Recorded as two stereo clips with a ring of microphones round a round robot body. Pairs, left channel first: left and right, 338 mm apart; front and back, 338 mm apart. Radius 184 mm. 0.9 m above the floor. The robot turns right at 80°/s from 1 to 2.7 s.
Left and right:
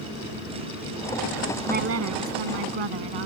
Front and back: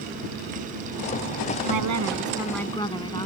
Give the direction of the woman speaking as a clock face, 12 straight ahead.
5 o'clock.